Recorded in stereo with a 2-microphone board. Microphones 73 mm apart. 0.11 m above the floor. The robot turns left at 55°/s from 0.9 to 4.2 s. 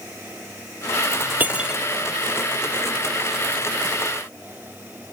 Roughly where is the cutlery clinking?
Right.